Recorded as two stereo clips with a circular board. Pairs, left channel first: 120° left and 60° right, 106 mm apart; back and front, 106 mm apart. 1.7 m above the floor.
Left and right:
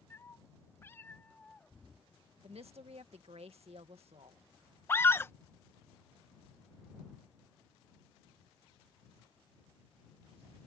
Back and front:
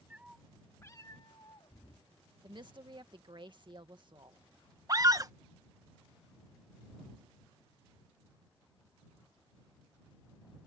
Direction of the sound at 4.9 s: 55° left.